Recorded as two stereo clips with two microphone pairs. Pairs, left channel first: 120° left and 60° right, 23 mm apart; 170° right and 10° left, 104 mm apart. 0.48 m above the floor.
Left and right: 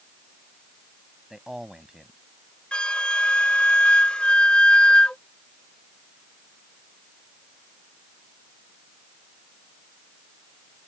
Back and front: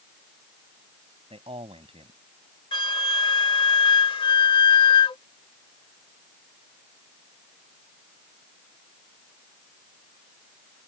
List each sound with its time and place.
1.3 s a man speaking: 15° left
2.7 s a flute: 155° left